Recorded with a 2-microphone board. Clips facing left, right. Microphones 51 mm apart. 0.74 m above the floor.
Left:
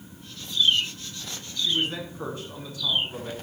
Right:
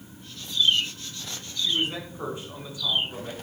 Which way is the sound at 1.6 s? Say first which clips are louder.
Even; 20° right (ahead or behind).